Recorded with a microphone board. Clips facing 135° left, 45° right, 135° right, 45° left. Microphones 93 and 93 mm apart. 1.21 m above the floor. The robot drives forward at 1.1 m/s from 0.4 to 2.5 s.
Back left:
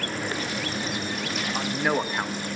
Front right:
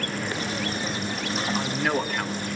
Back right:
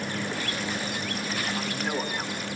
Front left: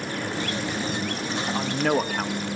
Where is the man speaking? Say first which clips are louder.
Back left 2 dB, front left 10 dB; 50° left, 2 m; by 2.4 s 75° left, 1.6 m.